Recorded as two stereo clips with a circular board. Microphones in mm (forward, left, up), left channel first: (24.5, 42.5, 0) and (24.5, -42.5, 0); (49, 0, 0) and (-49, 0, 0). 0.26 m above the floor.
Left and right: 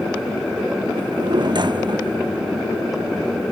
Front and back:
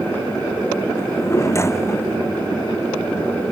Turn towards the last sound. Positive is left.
turn(degrees=-60)